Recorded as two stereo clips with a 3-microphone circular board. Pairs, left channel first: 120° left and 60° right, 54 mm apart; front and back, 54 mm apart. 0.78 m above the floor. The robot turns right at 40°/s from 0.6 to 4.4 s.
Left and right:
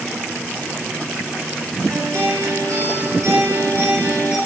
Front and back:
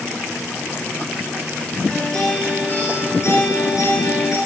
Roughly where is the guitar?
Right.